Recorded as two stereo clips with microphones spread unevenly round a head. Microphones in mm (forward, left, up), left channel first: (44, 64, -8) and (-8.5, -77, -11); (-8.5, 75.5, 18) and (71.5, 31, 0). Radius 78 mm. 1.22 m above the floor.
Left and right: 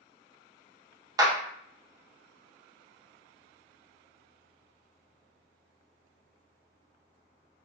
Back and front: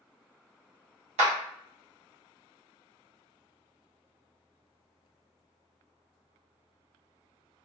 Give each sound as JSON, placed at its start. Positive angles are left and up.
{"t": 1.2, "sound": "a clap", "azimuth_deg": -45, "distance_m": 0.8}